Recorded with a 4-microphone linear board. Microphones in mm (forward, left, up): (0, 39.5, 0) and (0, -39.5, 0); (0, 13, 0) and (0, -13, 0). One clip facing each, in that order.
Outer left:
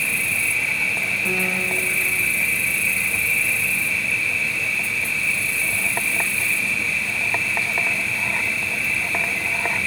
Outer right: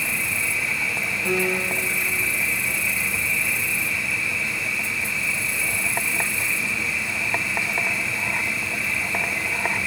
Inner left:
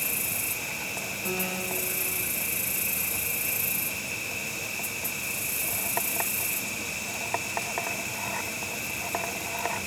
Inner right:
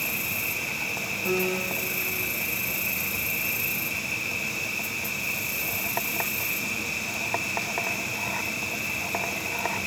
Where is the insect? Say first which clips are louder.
Outer left 2 dB, inner right 4 dB; 20° right (ahead or behind), 6 m.